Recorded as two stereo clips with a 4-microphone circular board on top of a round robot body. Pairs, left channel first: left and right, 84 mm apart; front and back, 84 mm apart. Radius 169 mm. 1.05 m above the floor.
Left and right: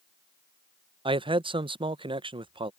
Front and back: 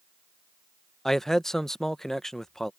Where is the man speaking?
85° right.